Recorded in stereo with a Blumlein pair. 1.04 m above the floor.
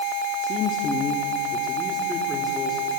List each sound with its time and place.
0.4 s a man speaking: 35° left, 2 m; by 3.0 s straight ahead, 4 m